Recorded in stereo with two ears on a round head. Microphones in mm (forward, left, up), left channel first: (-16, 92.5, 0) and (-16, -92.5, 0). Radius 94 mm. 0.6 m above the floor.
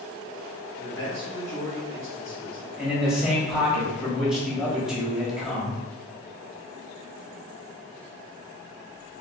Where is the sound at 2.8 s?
5° right (ahead or behind), 1.2 m.